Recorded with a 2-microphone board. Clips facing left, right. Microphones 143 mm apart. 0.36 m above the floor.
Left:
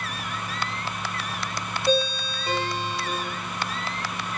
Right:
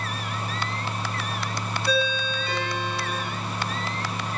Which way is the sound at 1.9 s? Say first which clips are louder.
Left 2 dB; 35° left (ahead or behind).